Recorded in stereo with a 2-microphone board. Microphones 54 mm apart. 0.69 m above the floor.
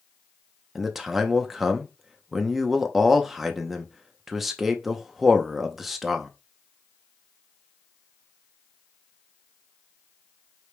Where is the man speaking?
5° right (ahead or behind), 0.7 m.